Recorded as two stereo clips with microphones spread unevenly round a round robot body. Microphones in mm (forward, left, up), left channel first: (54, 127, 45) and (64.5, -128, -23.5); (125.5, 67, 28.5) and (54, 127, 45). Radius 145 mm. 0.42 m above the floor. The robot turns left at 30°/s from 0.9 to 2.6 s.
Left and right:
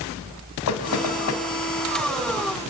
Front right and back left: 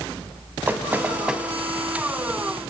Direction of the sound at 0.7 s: 70° left.